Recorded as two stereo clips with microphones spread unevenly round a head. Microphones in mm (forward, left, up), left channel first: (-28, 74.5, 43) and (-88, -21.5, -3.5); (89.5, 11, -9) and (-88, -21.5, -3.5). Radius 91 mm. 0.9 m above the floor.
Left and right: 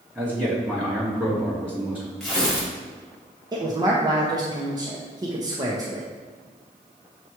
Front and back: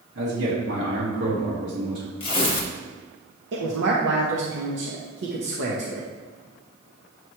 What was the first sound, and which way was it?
A man speaking, 175° left.